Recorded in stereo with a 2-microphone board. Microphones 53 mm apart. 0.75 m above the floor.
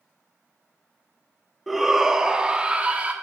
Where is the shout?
5° right (ahead or behind), 1.3 m; by 3.1 s 25° right (ahead or behind), 1.7 m.